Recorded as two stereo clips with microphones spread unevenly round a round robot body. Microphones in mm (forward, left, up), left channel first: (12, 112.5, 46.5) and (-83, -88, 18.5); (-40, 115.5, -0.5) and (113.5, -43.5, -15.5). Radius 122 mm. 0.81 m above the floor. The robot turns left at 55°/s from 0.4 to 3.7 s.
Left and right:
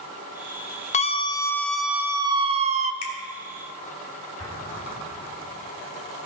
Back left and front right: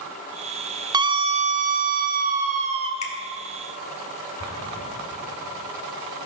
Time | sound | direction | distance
0.9 | a scream | 10° left | 0.8 m
3.0 | a finger snap | 75° left | 2 m
4.4 | an explosion | 135° left | 3.5 m